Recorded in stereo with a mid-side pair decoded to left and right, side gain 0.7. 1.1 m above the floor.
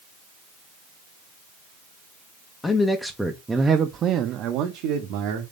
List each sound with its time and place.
2.6 s a man speaking: 20° left, 0.9 m; by 5.4 s 75° right, 1.3 m